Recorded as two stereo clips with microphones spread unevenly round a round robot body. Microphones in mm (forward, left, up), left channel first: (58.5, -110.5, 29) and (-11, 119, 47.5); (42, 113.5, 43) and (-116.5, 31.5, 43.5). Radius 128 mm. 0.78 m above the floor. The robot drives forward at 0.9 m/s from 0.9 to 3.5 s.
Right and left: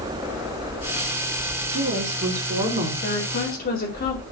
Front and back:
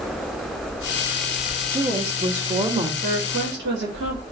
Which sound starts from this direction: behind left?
A woman speaking, at 1.7 s.